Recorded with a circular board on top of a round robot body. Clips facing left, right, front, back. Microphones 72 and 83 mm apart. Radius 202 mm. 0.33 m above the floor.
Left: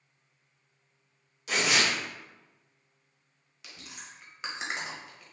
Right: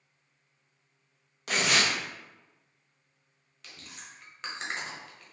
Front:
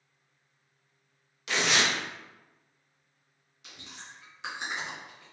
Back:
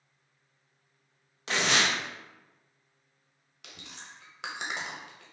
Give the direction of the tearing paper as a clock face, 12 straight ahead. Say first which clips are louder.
Even, even; 4 o'clock.